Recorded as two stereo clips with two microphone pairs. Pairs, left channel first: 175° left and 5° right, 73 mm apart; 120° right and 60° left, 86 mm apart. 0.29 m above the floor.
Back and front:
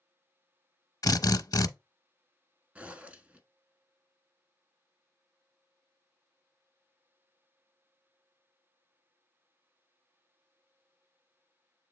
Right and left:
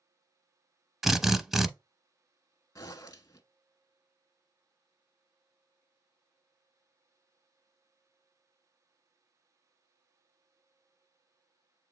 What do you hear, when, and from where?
1.0 s a drill: 150° left, 0.5 m
2.8 s a zipper: 80° right, 0.7 m